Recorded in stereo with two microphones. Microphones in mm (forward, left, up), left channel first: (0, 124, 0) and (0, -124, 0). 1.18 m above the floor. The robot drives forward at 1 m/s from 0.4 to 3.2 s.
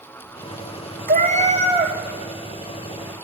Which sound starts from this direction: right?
A cat meowing, at 1.1 s.